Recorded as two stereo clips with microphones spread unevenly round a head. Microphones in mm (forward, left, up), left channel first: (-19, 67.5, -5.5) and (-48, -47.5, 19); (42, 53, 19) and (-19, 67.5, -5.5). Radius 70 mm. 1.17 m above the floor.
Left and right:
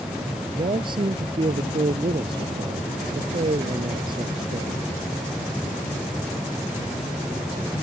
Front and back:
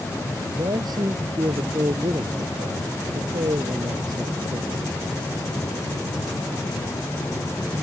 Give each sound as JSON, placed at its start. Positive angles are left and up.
{"t": 0.5, "sound": "a man speaking", "azimuth_deg": -155}